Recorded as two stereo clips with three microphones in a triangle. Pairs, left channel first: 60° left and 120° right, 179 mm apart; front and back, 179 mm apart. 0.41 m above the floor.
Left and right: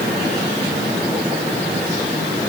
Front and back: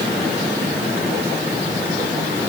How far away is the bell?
I don't hear a bell.